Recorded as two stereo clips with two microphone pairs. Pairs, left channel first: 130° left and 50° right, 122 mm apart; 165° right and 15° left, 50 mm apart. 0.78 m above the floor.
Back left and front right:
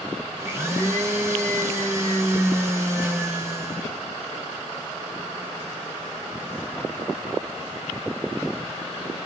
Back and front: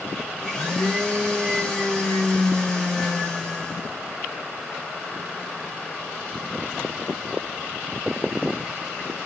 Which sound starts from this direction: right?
A blender, at 0.4 s.